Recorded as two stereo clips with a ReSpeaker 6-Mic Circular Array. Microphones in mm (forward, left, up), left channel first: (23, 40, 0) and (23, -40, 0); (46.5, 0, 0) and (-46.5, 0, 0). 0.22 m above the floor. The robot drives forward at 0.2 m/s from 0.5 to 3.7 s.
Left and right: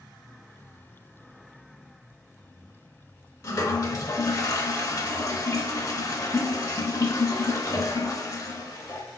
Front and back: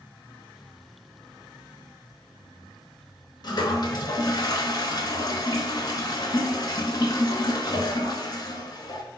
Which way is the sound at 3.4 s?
40° left.